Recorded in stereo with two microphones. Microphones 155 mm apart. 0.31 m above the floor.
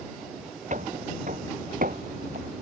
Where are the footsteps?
55° right (ahead or behind); by 2.5 s 70° right (ahead or behind).